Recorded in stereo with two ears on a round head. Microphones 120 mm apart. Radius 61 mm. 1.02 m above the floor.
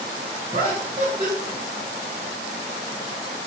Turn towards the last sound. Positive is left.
turn(degrees=-45)  # may be behind; listen again after turning